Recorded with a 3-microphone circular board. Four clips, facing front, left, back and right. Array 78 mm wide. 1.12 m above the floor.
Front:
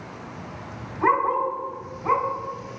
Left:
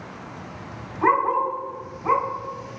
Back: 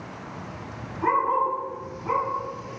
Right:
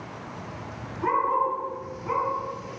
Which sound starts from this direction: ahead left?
A dog barking, at 1.0 s.